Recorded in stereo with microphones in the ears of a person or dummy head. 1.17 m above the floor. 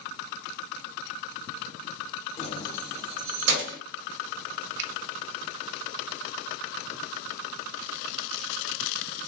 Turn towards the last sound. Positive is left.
turn(degrees=-65)  # may be behind; listen again after turning